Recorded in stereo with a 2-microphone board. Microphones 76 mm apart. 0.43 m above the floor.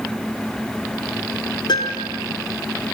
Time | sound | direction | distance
1.7 | a piano | 65° left (ahead or behind) | 5.5 m